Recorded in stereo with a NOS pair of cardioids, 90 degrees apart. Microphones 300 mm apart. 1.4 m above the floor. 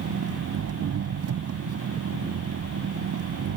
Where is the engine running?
55° right.